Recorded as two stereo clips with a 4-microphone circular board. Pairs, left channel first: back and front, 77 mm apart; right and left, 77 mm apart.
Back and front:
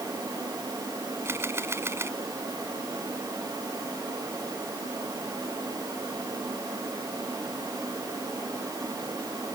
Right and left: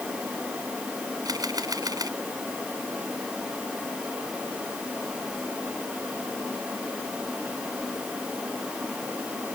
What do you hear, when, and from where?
1.2 s a camera shutter: 55° left